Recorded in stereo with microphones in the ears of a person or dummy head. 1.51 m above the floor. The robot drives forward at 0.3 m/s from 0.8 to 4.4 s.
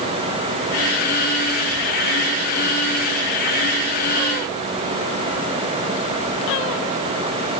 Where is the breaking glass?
No breaking glass in this recording.